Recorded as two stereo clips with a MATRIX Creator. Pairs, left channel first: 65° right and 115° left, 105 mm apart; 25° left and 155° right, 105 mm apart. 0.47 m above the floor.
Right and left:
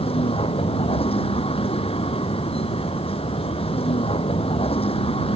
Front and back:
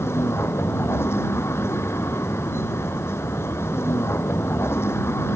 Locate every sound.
0.0 s a vehicle: 45° right